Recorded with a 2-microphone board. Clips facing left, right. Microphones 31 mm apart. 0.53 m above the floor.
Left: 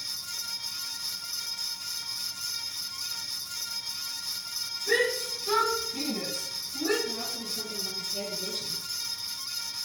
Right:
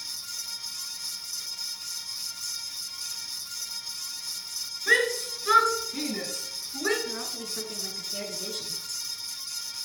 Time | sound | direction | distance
4.9 | a shout | 85° right | 7.5 m
7.0 | a woman speaking | 75° right (ahead or behind) | 6 m